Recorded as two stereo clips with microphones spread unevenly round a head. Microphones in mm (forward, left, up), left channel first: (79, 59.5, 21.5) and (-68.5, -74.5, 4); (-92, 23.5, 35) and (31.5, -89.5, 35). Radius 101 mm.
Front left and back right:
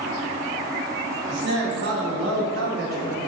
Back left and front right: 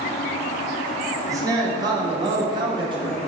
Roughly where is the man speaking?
Right.